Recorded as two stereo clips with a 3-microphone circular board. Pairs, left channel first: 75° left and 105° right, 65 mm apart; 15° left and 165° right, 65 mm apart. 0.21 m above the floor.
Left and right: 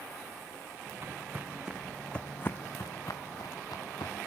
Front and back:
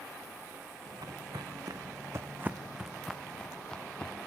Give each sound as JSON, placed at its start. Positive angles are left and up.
{"t": 0.9, "sound": "footsteps", "azimuth_deg": -155, "distance_m": 1.5}